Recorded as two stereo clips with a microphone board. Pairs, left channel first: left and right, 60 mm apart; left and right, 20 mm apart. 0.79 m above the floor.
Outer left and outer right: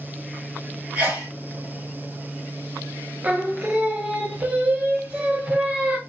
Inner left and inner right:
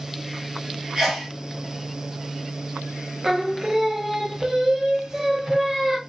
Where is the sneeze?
30° right (ahead or behind), 1.3 m.